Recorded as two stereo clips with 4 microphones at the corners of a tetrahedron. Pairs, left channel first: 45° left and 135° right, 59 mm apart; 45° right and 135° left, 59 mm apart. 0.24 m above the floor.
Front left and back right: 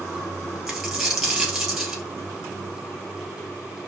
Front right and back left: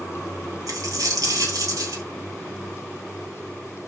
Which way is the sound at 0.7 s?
140° left.